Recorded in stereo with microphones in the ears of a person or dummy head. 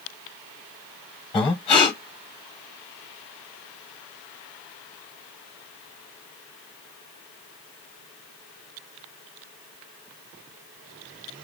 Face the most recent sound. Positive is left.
turn(degrees=25)  # may be behind; listen again after turning